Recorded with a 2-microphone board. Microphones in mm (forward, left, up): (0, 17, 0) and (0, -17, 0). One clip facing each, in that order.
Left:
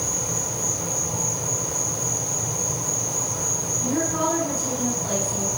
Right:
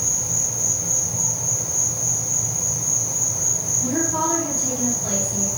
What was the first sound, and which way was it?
An insect, 50° left (ahead or behind).